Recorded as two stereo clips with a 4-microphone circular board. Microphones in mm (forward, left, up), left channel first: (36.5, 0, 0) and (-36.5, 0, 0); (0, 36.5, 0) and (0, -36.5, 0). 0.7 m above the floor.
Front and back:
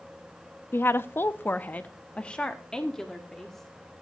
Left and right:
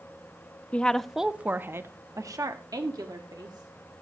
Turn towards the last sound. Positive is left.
turn(degrees=-85)